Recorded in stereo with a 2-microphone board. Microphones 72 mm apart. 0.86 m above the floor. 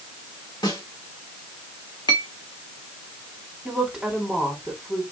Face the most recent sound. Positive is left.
turn(degrees=0)  # may be behind; listen again after turning